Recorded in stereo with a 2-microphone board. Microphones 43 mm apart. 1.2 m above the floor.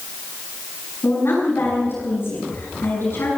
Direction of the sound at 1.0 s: 60° left (ahead or behind).